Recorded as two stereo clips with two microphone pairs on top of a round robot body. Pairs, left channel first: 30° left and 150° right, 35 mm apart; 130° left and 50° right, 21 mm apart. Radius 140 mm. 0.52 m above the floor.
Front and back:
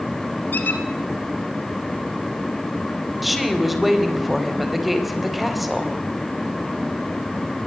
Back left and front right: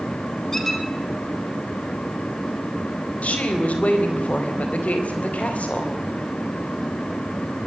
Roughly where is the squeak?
Ahead left.